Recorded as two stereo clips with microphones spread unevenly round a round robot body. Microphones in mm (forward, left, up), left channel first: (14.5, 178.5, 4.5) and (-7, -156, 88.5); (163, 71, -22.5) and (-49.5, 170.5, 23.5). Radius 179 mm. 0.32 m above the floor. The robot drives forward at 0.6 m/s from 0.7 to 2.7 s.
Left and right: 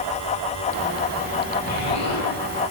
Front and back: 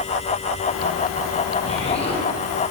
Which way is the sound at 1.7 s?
40° left.